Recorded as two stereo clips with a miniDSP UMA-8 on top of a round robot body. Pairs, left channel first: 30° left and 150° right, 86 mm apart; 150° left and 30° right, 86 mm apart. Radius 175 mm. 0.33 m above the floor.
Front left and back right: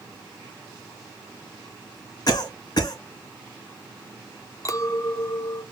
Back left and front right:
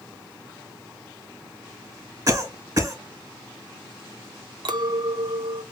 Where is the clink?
15° right, 0.8 m.